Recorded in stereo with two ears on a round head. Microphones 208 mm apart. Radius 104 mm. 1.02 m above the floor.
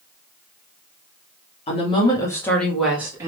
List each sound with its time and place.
1.7 s a woman speaking: 25° left (ahead or behind), 1.9 m; by 3.3 s 15° right (ahead or behind), 1.7 m